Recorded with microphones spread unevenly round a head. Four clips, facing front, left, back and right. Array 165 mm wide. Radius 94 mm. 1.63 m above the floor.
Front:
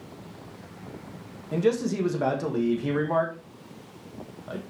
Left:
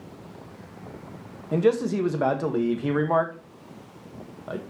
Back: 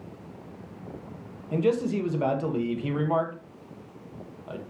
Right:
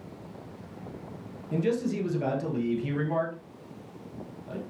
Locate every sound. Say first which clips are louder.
1.5 s a man speaking: left 6 dB, even; 85° left, 1.6 m